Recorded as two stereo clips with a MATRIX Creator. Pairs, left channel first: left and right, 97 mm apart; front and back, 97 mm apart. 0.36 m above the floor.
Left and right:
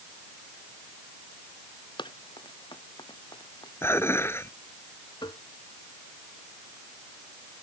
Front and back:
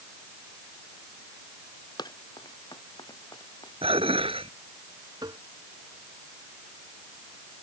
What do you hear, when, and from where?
2.0 s running footsteps: 45° left
3.8 s dishes clattering: 155° left
5.2 s tapping: 135° left